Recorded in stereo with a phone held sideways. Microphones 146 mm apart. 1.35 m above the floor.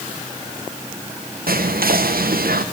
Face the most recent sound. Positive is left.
turn(degrees=-80)